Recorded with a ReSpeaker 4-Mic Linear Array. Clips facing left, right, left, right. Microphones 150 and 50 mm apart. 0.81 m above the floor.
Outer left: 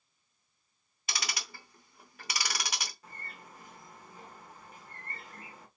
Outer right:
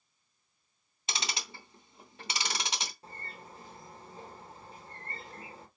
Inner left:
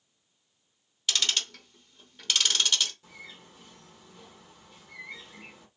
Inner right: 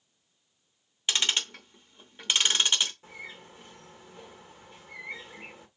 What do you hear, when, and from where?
1.1 s ticking: 25° right (ahead or behind), 0.8 m
3.0 s a bird: 30° right (ahead or behind), 1.4 m